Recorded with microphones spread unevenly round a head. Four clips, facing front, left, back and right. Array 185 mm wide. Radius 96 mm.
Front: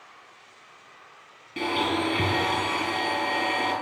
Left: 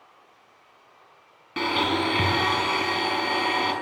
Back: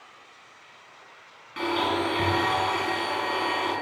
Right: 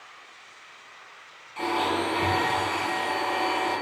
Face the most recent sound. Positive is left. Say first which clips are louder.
# left 1 dB, even
turn(degrees=60)